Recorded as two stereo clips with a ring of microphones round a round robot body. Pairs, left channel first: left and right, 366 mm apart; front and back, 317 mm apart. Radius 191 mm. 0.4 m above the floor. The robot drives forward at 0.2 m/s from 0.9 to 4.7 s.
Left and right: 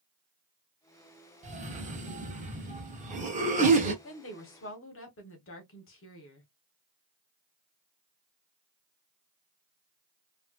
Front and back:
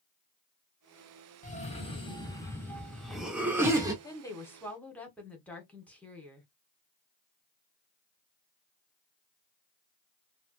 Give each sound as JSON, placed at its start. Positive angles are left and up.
{"t": 1.4, "sound": "a cough", "azimuth_deg": -40, "distance_m": 0.9}
{"t": 4.0, "sound": "a woman speaking", "azimuth_deg": 70, "distance_m": 1.1}